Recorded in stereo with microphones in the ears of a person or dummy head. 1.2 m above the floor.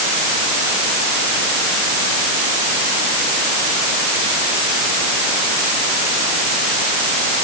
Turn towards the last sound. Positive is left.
No sound to turn to.